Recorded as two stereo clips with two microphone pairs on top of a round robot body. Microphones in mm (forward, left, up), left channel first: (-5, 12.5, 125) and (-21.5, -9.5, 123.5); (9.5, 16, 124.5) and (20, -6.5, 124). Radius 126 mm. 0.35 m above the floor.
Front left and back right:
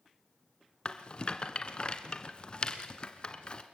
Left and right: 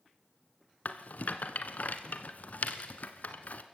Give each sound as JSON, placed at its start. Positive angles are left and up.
{"t": 0.8, "sound": "a rattle", "azimuth_deg": 110, "distance_m": 1.1}